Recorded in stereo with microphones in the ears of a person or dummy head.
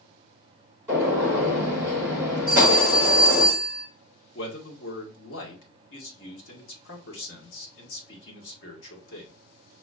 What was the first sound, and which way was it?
A gunshot, 20° right (ahead or behind).